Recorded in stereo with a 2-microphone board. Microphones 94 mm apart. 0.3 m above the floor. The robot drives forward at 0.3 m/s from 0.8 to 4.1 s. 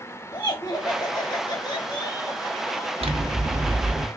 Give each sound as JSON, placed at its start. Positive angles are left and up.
{"t": 0.3, "sound": "laughter", "side_deg": 45, "distance_m": 1.4}
{"t": 3.0, "sound": "scissors", "side_deg": -90, "distance_m": 1.0}